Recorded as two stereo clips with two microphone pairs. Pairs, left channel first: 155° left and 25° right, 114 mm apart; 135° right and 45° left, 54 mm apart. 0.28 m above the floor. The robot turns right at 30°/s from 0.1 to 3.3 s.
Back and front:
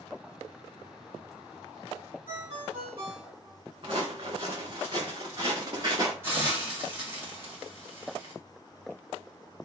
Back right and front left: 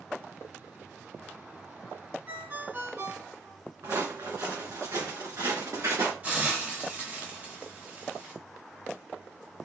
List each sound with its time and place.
2.3 s a ringtone: 5° right, 2.0 m; by 3.6 s 30° left, 2.0 m
3.8 s footsteps: 20° left, 1.6 m; by 6.1 s 35° left, 2.5 m
6.2 s a hiss: 25° left, 1.4 m